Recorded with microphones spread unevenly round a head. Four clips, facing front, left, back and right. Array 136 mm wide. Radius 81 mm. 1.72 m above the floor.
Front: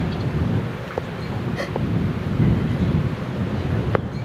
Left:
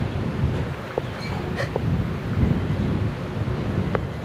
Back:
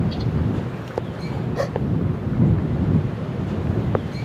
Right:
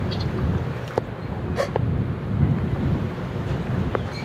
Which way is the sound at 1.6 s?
160° right.